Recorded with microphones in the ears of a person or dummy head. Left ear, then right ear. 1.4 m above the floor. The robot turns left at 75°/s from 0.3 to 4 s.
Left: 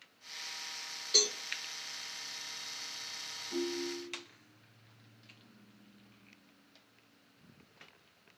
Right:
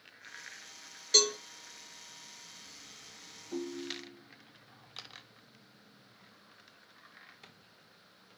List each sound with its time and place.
1.1 s a cowbell: 25° right (ahead or behind), 0.9 m; by 1.4 s 5° right (ahead or behind), 0.9 m
3.5 s a ringtone: 10° left, 1.1 m; by 4.2 s 30° right, 1.1 m